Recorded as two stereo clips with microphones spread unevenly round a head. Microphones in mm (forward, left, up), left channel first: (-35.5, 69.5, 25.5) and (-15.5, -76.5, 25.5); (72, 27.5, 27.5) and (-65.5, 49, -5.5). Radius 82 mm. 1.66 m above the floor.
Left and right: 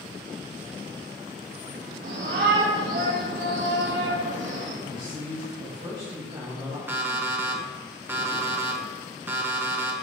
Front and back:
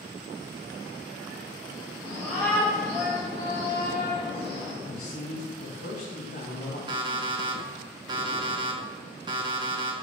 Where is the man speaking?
20° right, 2.5 m.